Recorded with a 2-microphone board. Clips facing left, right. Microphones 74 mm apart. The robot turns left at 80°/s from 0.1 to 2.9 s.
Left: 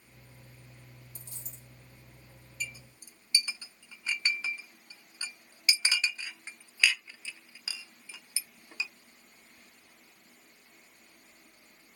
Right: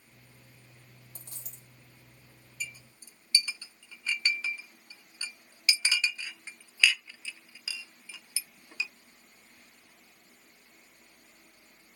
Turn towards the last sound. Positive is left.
turn(degrees=15)  # may be behind; listen again after turning